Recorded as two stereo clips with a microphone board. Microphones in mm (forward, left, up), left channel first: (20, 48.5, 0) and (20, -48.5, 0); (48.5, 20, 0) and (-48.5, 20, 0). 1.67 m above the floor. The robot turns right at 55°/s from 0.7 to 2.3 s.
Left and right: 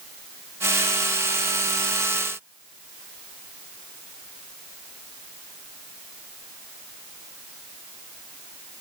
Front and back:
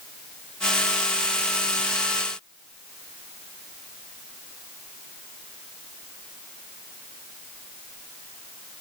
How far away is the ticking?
No ticking in this recording.